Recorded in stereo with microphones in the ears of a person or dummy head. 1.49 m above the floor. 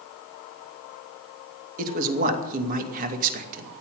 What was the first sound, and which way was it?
A man speaking, 45° right (ahead or behind).